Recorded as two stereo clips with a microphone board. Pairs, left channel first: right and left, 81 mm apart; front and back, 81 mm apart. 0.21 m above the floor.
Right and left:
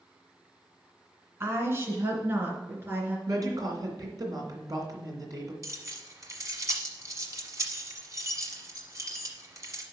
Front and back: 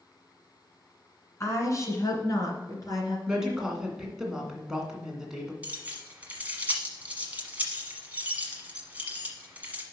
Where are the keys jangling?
115° left, 1.2 m.